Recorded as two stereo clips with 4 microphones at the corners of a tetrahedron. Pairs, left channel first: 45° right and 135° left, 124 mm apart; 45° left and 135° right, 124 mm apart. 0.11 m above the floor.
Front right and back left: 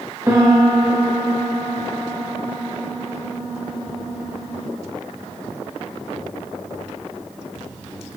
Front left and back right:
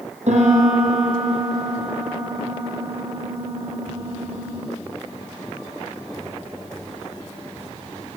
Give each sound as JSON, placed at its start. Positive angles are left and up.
{"t": 0.3, "sound": "a piano", "azimuth_deg": -155, "distance_m": 7.5}